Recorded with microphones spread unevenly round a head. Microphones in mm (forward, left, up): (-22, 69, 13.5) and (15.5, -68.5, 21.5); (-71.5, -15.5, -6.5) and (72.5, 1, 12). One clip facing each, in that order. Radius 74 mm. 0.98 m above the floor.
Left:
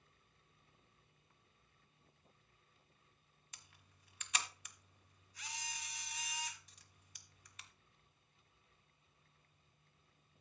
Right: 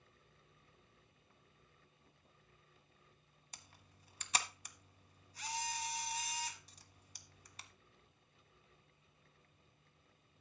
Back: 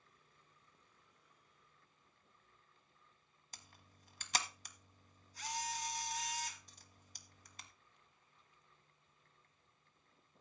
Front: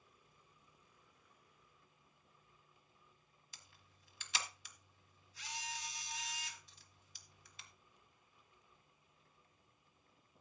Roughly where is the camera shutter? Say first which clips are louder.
Right 5 dB, back 6 dB; behind right.